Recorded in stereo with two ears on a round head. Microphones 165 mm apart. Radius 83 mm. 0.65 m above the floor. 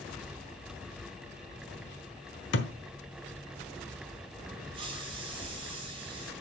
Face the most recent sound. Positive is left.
turn(degrees=-25)  # may be behind; listen again after turning